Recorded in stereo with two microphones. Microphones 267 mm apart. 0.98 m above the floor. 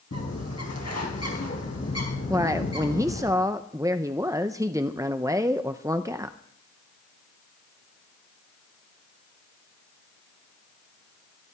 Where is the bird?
70° left (ahead or behind), 4.5 m.